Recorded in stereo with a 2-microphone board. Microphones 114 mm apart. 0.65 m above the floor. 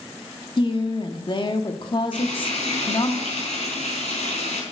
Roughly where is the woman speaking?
Left.